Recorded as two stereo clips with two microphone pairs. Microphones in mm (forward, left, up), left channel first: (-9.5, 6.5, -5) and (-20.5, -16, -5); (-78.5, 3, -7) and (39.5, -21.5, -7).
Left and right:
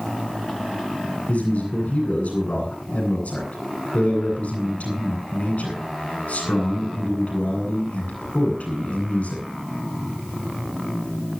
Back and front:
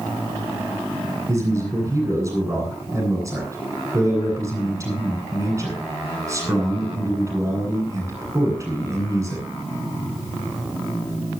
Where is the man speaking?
50° left, 9 m.